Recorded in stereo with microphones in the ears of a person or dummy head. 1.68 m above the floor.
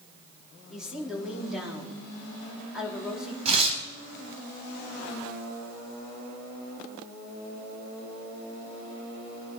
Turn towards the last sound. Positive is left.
turn(degrees=-35)  # may be behind; listen again after turning